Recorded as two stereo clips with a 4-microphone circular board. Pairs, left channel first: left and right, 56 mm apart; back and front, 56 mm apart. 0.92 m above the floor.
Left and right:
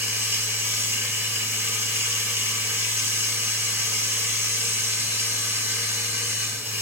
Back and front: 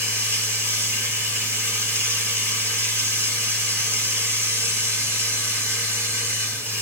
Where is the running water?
40° right, 2 m.